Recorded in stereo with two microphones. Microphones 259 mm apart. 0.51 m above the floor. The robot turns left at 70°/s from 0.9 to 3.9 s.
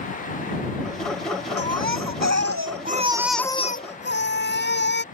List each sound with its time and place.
1.6 s a baby crying: 55° right; by 5.0 s 140° left